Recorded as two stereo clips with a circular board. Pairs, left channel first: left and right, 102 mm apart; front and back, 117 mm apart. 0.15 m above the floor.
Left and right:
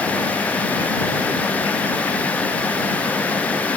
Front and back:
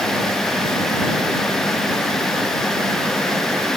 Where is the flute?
No flute in this recording.